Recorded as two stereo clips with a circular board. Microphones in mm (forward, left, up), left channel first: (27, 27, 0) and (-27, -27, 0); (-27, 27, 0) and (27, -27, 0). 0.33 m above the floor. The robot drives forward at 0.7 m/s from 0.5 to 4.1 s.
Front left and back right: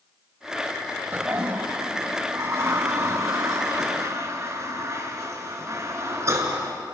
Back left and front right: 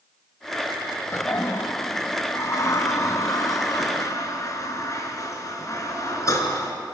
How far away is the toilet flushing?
About 1.1 m.